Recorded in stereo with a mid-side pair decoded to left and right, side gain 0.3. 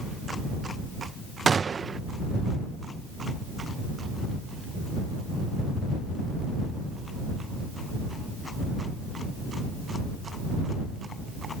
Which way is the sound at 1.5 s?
50° right.